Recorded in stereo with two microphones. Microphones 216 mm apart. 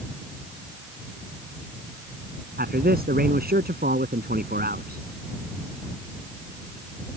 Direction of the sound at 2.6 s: 45° right (ahead or behind).